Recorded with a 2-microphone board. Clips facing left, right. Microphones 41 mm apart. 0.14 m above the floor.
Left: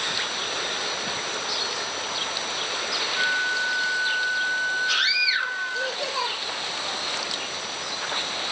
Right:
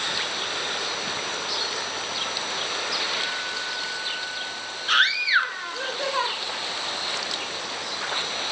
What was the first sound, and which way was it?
A flute, 55° left (ahead or behind).